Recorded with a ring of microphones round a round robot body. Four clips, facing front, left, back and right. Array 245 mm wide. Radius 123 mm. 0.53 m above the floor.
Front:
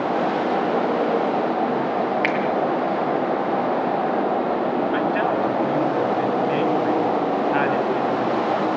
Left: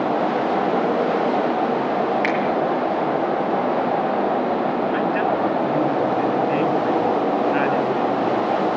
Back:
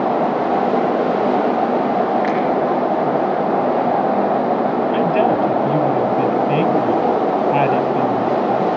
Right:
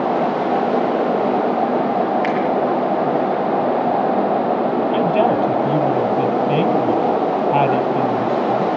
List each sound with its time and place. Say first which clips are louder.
2.2 s a finger snap: right 2 dB, back 4 dB; 10° left, 8 m
4.9 s a woman speaking: right 4 dB, back 5 dB; 130° right, 3 m